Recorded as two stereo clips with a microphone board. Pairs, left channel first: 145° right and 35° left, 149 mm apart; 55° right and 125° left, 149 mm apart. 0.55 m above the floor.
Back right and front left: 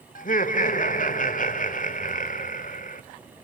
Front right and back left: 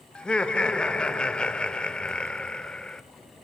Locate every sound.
0.1 s laughter: 140° right, 2 m